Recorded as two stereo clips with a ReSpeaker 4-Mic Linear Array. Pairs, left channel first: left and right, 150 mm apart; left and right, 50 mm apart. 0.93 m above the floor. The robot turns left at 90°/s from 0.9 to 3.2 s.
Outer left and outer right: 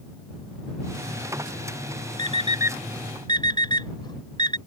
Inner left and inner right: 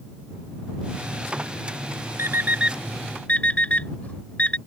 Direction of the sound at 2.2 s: 60° right (ahead or behind).